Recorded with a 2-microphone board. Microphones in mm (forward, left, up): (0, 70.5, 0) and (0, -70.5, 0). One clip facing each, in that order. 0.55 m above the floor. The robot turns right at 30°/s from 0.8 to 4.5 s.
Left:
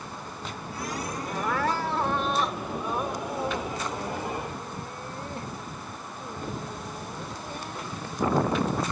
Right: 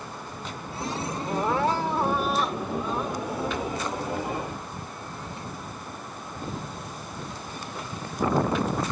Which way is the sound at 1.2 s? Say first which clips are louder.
Right 4 dB; 35° right.